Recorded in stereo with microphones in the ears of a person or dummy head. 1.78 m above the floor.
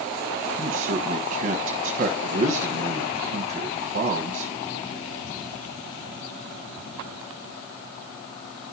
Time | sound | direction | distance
0.6 | a man speaking | 45° right (ahead or behind) | 1.2 m